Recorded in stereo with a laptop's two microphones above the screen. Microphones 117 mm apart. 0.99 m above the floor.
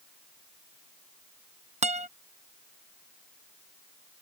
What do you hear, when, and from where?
1.8 s a guitar: 70° right (ahead or behind)